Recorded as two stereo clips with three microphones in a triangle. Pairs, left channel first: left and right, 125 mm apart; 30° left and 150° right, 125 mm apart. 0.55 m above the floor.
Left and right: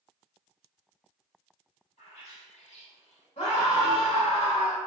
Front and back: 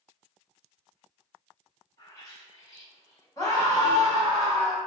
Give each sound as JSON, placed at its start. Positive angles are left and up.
{"t": 2.0, "sound": "a bird", "azimuth_deg": 90, "distance_m": 3.0}
{"t": 3.4, "sound": "a scream", "azimuth_deg": 85, "distance_m": 2.0}